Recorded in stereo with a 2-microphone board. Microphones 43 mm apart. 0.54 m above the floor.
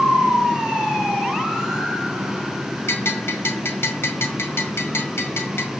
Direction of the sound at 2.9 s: 80° left.